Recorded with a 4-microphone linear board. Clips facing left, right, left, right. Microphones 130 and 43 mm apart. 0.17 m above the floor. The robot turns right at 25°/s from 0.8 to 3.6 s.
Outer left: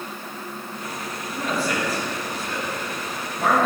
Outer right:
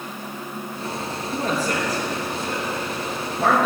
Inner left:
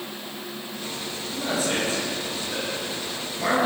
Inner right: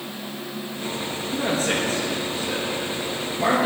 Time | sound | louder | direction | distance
1.3 | a man speaking | outer right 1 dB, inner right 2 dB | 50° right (ahead or behind) | 3.5 m